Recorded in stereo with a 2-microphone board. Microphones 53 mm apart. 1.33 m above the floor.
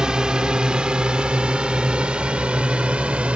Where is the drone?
15° right (ahead or behind); by 3.4 s 25° right (ahead or behind).